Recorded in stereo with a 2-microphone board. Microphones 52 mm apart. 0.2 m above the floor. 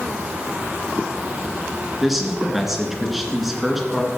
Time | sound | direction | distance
2.0 | a man speaking | 5° right (ahead or behind) | 2.5 m